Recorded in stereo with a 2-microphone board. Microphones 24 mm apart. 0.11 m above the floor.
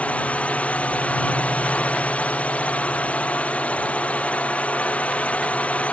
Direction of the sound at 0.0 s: 65° left (ahead or behind).